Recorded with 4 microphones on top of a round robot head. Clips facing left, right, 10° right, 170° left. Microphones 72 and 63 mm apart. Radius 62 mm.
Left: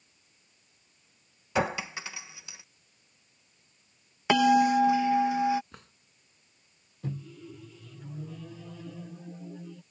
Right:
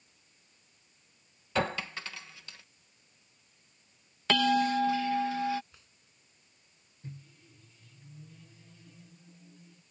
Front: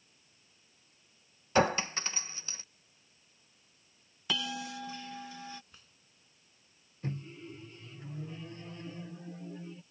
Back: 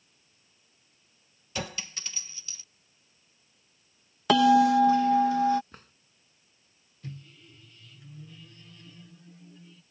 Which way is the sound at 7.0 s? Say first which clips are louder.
Left 11 dB, front 5 dB; 45° left.